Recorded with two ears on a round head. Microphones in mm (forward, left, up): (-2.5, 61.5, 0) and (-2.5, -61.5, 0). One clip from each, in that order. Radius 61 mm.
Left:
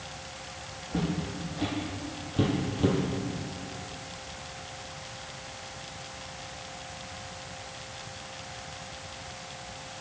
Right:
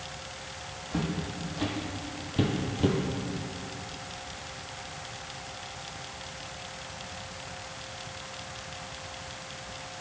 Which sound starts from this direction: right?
Footsteps, at 0.9 s.